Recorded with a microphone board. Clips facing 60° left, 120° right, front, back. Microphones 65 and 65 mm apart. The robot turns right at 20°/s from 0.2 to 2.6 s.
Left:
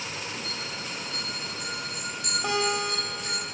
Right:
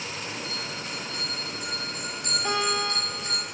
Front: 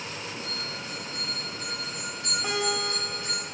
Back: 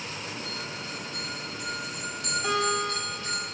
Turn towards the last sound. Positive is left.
turn(degrees=70)